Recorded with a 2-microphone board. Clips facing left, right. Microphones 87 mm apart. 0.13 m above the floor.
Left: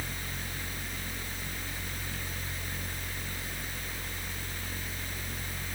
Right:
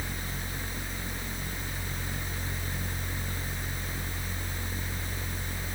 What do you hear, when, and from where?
Only background noise.